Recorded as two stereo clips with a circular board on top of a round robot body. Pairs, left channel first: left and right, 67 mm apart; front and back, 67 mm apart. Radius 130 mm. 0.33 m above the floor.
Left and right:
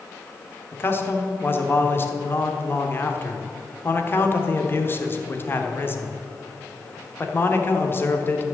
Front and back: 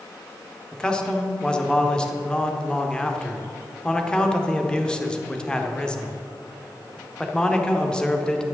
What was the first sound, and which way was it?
A man speaking, 70° left.